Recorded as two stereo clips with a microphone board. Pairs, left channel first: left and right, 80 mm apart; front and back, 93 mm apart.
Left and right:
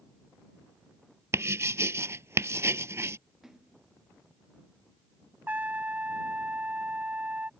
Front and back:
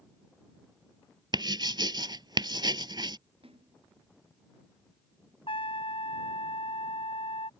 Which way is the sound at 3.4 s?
175° right.